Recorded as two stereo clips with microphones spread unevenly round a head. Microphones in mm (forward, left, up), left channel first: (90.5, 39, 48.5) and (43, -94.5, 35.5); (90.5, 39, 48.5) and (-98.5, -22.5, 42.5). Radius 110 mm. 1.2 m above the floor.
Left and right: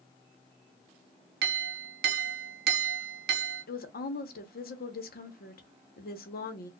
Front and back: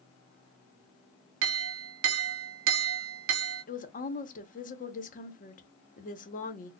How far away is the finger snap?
I don't hear a finger snap.